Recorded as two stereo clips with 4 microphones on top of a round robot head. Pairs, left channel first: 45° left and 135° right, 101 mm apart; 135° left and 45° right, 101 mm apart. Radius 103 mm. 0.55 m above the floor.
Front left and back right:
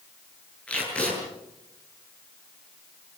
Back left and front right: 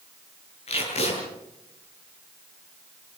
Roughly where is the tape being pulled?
Behind left.